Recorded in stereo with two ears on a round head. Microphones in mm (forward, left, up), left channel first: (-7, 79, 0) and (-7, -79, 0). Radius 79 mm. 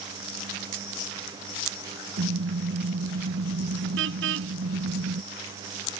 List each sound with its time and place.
2.2 s a car horn: 70° right (ahead or behind)